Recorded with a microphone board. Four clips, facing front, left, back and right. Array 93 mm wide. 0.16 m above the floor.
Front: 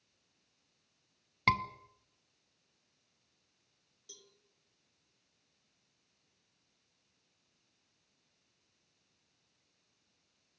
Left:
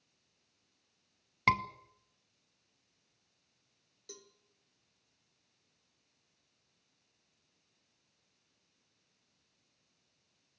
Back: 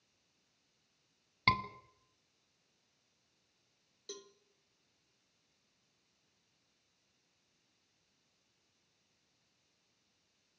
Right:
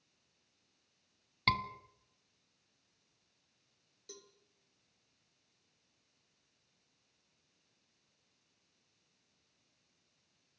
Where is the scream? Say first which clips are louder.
Left 4 dB, front 2 dB; 65° left, 1.3 m.